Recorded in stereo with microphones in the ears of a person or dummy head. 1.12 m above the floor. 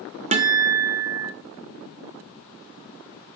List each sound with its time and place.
0.3 s a guitar: 35° right (ahead or behind), 0.9 m